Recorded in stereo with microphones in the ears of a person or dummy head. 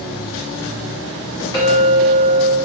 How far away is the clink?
About 1.2 m.